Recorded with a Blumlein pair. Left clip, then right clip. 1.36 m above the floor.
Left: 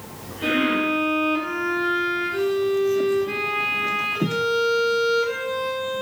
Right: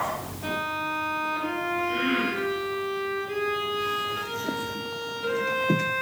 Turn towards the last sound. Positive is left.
turn(degrees=45)